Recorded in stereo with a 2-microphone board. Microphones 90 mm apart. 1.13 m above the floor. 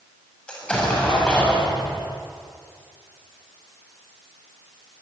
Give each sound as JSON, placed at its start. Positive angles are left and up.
{"t": 0.5, "sound": "an explosion", "side_deg": 10, "distance_m": 6.5}